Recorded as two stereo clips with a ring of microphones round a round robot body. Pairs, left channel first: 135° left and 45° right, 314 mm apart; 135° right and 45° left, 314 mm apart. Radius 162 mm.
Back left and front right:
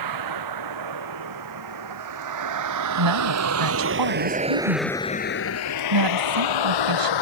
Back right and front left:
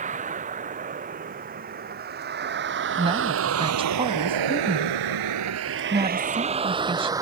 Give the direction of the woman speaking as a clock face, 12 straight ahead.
1 o'clock.